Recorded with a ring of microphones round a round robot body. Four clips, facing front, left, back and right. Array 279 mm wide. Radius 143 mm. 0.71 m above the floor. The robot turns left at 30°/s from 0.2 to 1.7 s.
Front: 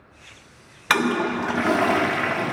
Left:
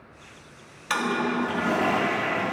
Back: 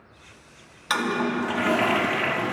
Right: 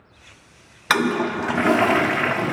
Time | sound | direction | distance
0.9 | a toilet flushing | 55° right | 0.5 m